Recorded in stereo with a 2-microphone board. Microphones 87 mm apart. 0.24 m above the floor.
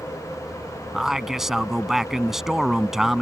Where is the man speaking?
5° right (ahead or behind).